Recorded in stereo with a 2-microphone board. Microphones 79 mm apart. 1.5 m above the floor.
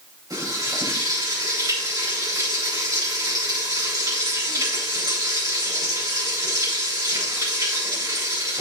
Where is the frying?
55° right (ahead or behind), 6.5 m.